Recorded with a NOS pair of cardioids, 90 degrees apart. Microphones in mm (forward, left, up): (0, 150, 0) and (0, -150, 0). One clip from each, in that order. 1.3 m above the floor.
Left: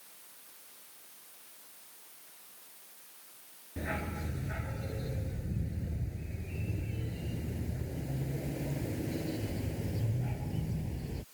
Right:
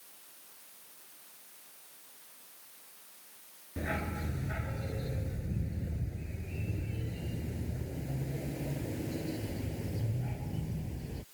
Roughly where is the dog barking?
Ahead.